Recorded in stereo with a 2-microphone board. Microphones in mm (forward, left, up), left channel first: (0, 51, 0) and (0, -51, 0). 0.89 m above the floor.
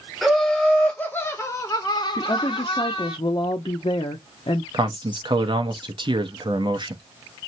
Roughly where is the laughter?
Centre.